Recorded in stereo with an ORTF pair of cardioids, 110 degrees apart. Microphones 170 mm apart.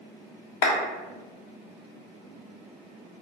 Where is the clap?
60° left, 0.9 m.